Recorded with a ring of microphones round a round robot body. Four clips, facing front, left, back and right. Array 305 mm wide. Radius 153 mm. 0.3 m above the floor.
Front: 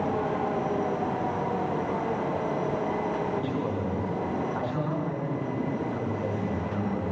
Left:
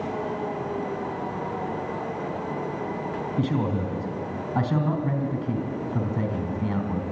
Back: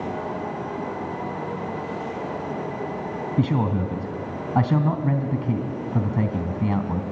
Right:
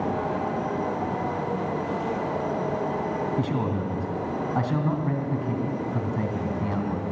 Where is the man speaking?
170° left, 2.5 m.